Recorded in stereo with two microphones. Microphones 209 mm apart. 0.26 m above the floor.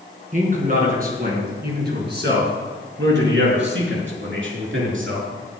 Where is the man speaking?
35° right (ahead or behind), 3.5 m; by 5.3 s 70° right (ahead or behind), 4.5 m.